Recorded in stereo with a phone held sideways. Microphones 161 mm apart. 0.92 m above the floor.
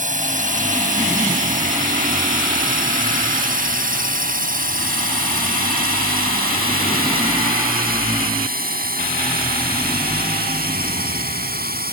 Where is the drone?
60° right (ahead or behind); by 11.9 s 80° right.